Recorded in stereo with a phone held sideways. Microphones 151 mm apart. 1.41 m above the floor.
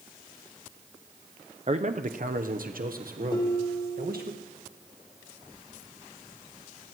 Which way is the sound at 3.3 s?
35° left (ahead or behind).